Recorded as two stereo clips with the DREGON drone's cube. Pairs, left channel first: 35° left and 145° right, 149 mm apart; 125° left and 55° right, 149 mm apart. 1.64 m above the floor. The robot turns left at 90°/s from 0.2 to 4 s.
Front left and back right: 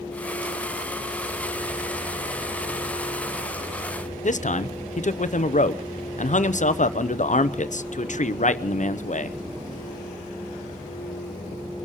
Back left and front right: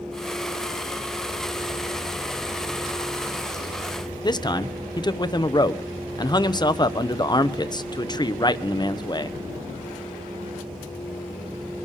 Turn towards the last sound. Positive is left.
turn(degrees=65)